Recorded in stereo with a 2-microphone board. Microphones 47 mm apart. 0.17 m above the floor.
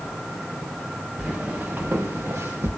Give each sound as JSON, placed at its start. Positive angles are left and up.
{"t": 1.2, "sound": "footsteps", "side_deg": -30, "distance_m": 1.2}